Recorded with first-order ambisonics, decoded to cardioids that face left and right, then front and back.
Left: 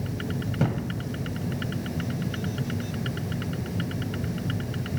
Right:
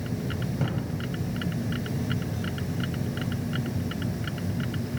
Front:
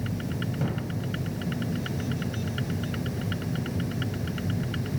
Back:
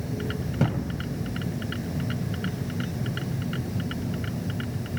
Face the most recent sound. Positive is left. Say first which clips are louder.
# left 5 dB, back 7 dB
turn(degrees=145)